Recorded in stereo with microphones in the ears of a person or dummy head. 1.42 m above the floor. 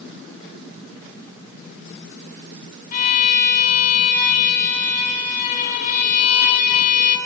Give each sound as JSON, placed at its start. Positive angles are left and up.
{"t": 2.9, "sound": "a violin", "side_deg": 45, "distance_m": 3.5}